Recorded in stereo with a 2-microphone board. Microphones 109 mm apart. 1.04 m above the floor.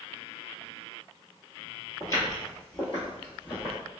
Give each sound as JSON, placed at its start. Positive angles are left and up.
{"t": 2.0, "sound": "footsteps", "side_deg": 30, "distance_m": 1.2}